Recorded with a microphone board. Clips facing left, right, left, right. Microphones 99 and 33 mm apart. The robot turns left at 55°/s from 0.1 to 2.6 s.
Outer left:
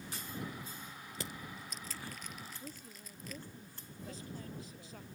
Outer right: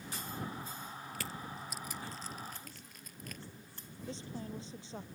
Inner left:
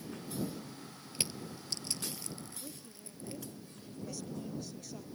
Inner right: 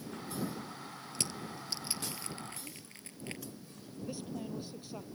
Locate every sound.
1.1 s crushing: 25° left (ahead or behind); by 3.4 s 55° right (ahead or behind)
2.6 s a woman speaking: 45° left (ahead or behind)
4.1 s a woman speaking: 30° right (ahead or behind)